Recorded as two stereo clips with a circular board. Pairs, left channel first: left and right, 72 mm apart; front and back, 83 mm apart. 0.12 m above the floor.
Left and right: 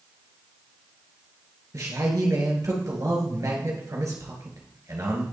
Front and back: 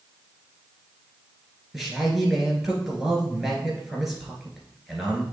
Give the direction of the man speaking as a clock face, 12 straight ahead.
3 o'clock.